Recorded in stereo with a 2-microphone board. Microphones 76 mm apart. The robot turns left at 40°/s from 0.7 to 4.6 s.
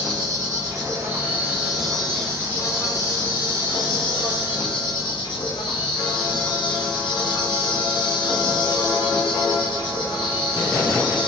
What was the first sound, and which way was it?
An insect, 130° right.